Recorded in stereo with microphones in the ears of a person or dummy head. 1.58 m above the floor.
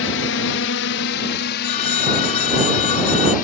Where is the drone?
65° left (ahead or behind); by 3.5 s 50° left (ahead or behind).